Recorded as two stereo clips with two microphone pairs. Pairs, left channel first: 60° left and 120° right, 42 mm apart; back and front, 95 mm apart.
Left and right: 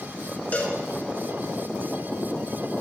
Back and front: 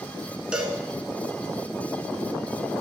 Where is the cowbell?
80° left, 0.7 m.